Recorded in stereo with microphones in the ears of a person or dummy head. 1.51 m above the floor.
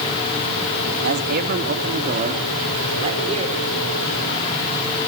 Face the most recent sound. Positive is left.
turn(degrees=-30)  # may be behind; listen again after turning